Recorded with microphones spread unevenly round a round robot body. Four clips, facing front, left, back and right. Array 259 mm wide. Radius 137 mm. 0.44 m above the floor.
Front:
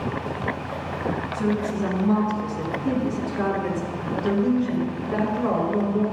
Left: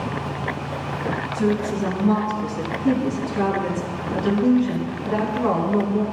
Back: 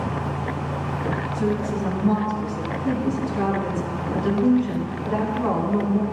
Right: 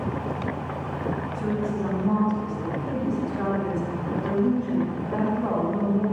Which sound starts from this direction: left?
A woman speaking, at 1.3 s.